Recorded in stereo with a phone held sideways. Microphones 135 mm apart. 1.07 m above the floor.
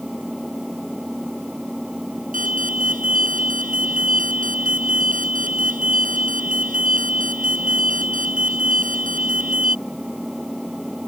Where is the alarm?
85° right.